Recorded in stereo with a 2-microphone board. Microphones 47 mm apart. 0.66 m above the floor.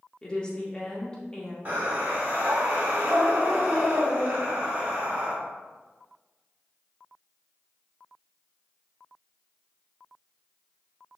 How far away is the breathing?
About 1.7 m.